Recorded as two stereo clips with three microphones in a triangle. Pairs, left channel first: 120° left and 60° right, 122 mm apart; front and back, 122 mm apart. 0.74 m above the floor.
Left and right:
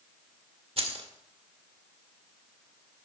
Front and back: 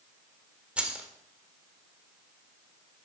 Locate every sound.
0.8 s keys jangling: 100° right, 1.3 m